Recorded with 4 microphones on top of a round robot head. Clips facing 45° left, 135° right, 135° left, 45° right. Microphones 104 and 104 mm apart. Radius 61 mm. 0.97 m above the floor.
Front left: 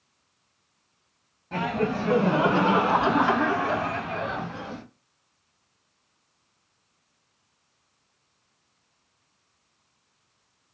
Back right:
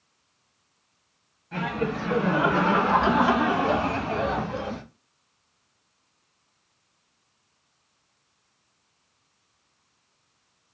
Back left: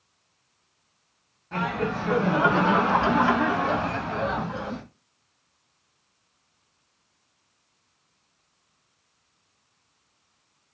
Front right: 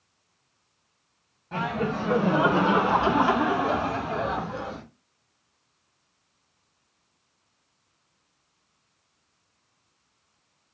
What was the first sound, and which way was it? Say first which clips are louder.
Laughter: front left 2 dB, even; 30° left.